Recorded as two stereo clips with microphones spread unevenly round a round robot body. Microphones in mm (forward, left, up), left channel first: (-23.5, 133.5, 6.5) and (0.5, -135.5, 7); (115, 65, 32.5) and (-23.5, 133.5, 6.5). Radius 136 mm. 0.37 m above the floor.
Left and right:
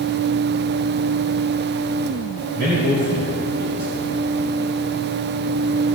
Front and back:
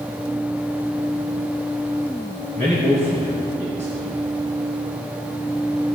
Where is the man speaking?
80° right, 3.5 m.